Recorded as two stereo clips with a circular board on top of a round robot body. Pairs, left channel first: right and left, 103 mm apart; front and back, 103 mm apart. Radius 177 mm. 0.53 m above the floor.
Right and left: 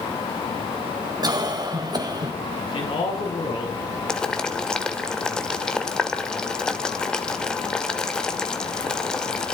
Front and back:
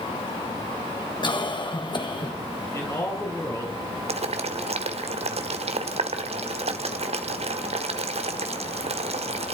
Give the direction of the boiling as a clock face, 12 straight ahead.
6 o'clock.